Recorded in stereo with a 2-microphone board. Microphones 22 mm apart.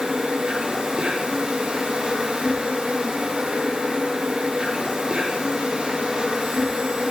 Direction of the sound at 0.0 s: 45° right (ahead or behind).